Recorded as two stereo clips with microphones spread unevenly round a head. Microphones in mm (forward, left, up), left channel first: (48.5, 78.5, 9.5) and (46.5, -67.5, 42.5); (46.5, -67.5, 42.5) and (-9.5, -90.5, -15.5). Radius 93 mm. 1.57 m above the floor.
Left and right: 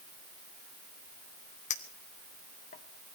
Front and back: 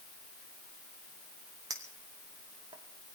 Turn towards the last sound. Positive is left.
turn(degrees=100)